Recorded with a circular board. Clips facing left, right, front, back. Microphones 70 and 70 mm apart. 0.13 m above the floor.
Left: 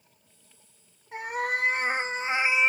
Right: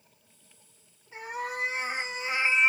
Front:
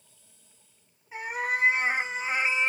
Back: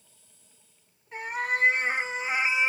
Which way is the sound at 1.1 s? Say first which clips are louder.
Left 5 dB, even; 85° left.